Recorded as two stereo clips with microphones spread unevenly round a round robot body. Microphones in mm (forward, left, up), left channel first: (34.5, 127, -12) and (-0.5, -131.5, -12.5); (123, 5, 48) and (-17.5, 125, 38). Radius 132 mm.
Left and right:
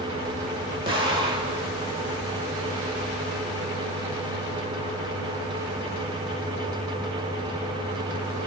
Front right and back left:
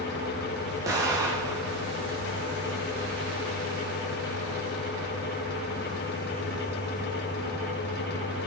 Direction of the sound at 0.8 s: 160° right.